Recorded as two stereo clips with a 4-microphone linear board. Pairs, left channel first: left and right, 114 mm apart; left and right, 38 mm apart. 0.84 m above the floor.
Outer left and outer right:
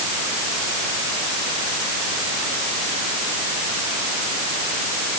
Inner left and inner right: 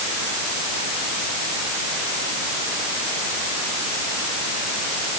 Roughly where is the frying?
No frying in this recording.